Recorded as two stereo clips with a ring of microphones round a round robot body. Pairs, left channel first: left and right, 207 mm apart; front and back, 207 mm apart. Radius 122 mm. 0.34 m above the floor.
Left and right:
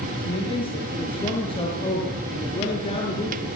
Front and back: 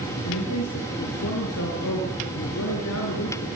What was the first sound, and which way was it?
A man speaking, 25° left.